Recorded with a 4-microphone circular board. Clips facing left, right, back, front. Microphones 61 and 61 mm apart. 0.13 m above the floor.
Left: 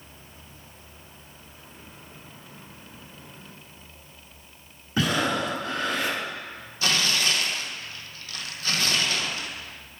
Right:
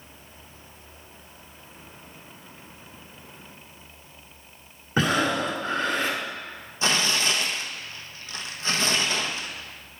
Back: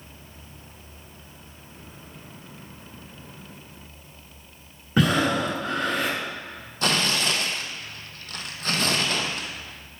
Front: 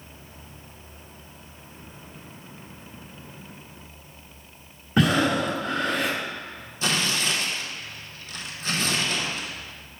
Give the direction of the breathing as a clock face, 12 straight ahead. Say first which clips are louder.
Right 2 dB, even; 3 o'clock.